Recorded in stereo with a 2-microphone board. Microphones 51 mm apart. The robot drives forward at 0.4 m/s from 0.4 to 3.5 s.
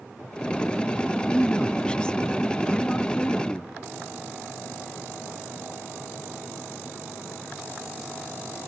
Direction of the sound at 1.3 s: 20° left (ahead or behind).